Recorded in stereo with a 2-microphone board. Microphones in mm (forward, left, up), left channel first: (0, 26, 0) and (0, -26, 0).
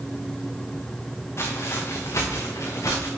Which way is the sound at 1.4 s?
55° left (ahead or behind).